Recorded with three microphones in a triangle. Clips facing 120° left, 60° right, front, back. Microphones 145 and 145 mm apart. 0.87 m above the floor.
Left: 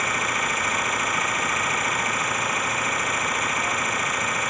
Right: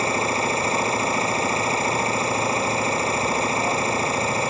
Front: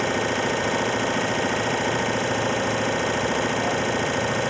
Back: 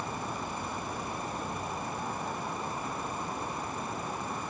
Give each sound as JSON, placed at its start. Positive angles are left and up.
{"t": 0.0, "sound": "an engine running", "azimuth_deg": 0}